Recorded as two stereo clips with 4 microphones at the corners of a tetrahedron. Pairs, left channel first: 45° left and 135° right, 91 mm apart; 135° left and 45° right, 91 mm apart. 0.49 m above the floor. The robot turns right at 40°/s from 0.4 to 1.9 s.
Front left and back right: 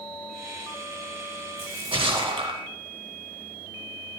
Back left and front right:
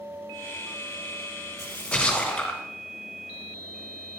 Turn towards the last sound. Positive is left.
turn(degrees=-145)